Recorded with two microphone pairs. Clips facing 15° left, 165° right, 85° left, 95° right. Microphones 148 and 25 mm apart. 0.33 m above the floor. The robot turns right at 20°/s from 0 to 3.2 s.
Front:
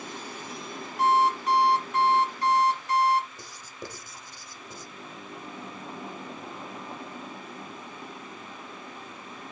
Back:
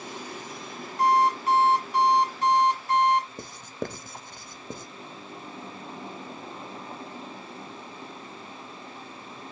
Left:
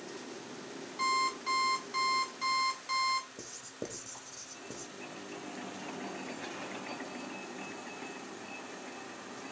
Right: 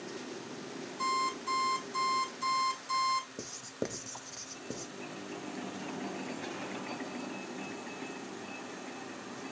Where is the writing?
150° right, 0.6 m.